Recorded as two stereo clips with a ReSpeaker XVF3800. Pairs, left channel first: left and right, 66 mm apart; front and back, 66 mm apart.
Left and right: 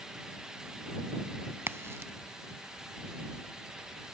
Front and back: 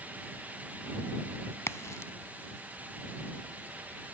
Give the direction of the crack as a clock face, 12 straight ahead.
1 o'clock.